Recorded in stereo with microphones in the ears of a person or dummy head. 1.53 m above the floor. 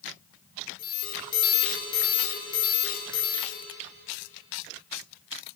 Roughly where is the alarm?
Left.